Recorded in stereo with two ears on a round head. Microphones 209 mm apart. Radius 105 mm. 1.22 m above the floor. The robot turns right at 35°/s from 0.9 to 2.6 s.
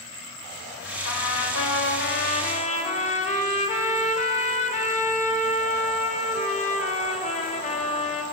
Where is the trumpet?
95° left, 3 m; by 8.2 s 150° left, 3 m.